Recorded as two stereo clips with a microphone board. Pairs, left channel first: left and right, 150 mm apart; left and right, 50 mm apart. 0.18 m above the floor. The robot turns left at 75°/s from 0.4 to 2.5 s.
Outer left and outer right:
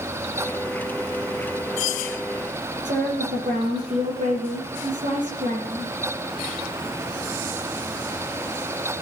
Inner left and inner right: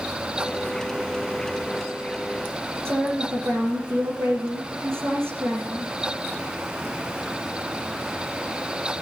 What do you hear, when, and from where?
2.9 s a woman speaking: 55° right (ahead or behind), 5 m